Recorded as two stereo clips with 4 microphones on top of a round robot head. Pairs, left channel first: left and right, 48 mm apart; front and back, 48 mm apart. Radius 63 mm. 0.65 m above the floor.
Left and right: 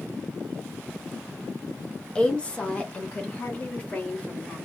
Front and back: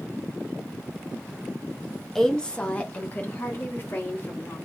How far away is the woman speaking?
About 0.9 m.